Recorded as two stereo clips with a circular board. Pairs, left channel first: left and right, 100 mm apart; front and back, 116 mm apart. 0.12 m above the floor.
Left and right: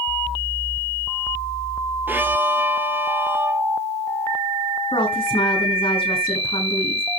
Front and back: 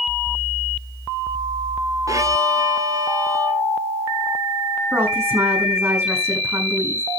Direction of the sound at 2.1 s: 145° right.